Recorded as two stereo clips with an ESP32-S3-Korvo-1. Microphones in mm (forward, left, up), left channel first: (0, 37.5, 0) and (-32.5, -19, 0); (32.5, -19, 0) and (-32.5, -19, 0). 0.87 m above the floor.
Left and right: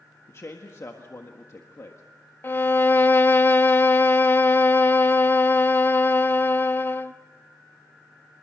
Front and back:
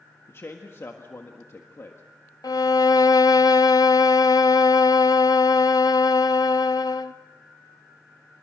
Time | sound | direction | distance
0.3 | a man speaking | 35° left | 1.5 m
2.4 | a violin | 5° left | 0.6 m